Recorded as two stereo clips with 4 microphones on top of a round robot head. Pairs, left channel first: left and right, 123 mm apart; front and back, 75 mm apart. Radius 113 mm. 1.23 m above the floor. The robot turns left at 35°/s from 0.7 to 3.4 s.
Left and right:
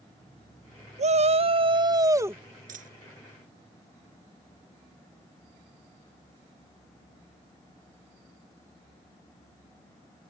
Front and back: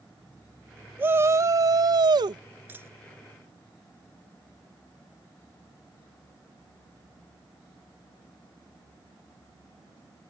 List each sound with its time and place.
1.0 s a shout: 115° right; by 2.4 s 165° right
2.7 s a dropped coin: 110° right; by 2.9 s 115° right